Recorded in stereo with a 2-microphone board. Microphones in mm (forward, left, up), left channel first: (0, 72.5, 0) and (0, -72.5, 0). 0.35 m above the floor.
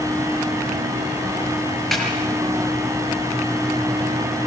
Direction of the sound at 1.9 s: Centre (ahead or behind).